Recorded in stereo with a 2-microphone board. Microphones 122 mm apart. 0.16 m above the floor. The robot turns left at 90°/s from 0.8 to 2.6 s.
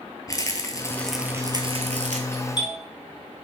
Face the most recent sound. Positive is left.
turn(degrees=40)  # may be behind; listen again after turning